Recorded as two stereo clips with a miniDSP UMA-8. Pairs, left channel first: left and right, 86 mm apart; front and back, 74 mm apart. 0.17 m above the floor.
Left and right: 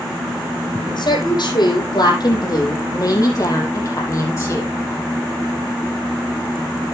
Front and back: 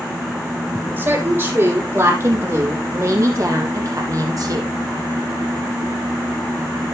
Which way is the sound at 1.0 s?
120° left.